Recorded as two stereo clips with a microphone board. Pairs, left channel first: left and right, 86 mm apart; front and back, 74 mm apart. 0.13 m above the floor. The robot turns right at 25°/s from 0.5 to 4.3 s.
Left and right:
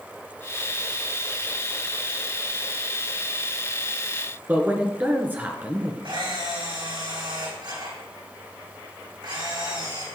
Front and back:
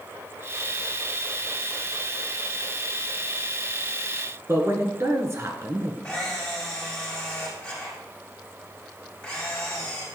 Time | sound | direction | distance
4.5 | a man speaking | 150° right | 2 m
6.0 | a camera shutter | 80° right | 6 m